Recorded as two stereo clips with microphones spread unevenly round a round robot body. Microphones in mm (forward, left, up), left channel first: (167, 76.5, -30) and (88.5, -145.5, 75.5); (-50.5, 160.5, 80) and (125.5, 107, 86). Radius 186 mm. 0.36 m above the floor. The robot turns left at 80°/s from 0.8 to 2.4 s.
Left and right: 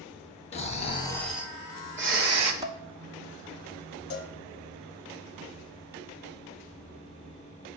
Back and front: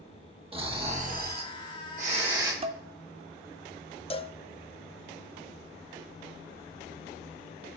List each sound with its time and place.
0.5 s snoring: 40° left, 1.2 m; by 2.5 s 85° right, 1.2 m
2.6 s dishes clattering: straight ahead, 0.7 m
4.1 s a cowbell: 100° left, 0.6 m